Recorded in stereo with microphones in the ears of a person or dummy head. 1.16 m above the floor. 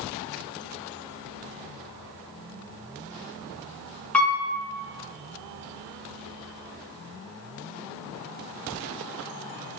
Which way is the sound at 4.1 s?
5° left (ahead or behind).